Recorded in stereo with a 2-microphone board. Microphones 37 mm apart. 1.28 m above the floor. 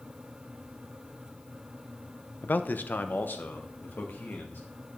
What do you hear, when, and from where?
2.4 s a man speaking: 60° left (ahead or behind), 0.6 m; by 4.6 s 70° left (ahead or behind), 2.0 m